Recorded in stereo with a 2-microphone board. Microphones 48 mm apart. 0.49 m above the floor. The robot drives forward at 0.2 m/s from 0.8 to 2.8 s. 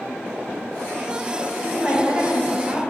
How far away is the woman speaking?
About 2 m.